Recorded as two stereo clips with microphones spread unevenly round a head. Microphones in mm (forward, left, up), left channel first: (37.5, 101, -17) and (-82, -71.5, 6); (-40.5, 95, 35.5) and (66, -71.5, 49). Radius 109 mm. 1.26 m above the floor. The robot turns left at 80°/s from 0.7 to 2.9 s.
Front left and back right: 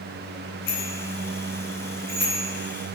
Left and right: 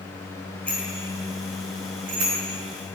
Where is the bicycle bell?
40° left, 9.5 m; by 2.4 s 100° right, 9.5 m.